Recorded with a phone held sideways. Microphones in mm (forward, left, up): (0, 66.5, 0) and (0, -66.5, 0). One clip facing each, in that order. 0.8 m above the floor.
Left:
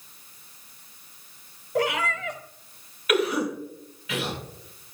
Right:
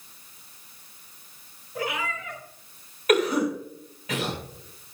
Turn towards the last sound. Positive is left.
turn(degrees=-45)  # may be behind; listen again after turning